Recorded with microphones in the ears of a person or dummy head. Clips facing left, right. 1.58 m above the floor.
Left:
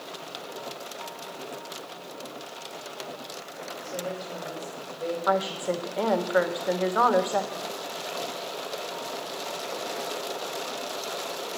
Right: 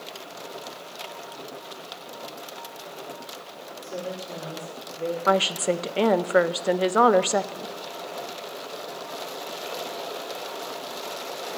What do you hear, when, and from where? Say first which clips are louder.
3.8 s a woman speaking: right 1 dB; 45° right (ahead or behind), 5.5 m
5.3 s a woman speaking: right 4 dB; 40° right (ahead or behind), 0.5 m